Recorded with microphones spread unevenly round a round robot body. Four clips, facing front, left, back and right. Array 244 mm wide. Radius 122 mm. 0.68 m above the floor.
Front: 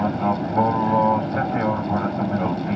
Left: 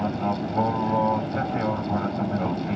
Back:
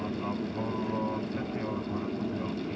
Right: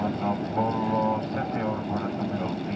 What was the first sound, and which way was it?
An aircraft, straight ahead.